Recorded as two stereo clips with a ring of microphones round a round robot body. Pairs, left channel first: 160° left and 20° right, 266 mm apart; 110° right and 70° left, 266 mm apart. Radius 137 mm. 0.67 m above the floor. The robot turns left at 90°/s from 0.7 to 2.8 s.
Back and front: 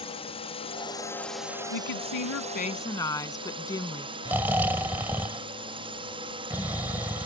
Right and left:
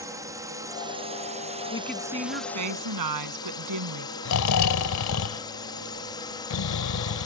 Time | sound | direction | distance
0.0 | a drone | 125° left | ?
1.7 | a woman speaking | straight behind | ?
4.2 | snoring | 105° right | ?